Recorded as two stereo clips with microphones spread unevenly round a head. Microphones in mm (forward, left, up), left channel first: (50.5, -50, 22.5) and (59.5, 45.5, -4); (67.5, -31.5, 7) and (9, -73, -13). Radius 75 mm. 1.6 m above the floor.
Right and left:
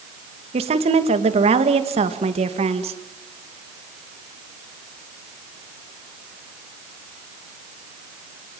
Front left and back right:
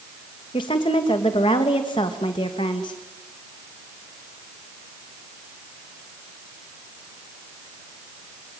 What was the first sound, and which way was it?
A woman speaking, 75° left.